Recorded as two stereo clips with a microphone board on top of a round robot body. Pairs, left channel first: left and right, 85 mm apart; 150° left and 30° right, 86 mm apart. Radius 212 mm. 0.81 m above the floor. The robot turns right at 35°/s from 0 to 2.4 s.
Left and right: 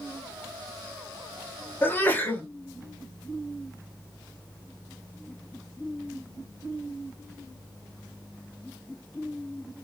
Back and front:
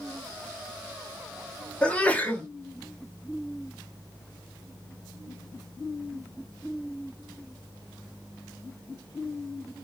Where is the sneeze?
95° left, 1.1 m; by 2.4 s 115° left, 1.1 m.